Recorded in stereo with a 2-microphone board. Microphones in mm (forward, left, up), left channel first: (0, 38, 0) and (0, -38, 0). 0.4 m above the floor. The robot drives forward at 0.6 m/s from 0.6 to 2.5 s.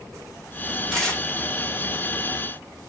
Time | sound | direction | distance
0.9 | tearing paper | 5° left (ahead or behind) | 1.2 m